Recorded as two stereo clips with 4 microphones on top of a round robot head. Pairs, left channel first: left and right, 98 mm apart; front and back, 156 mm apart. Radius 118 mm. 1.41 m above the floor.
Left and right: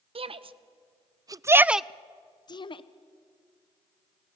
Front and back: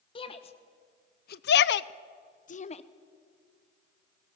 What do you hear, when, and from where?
0.1 s a shout: 65° right, 1.2 m; by 2.8 s 55° left, 0.8 m